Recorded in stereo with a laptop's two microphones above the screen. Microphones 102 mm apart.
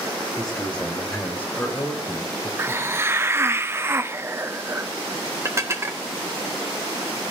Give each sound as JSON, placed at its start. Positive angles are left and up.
{"t": 0.4, "sound": "a man speaking", "side_deg": 5, "distance_m": 4.0}
{"t": 2.6, "sound": "a hiss", "side_deg": -25, "distance_m": 0.7}
{"t": 5.5, "sound": "dishes clattering", "side_deg": -25, "distance_m": 1.5}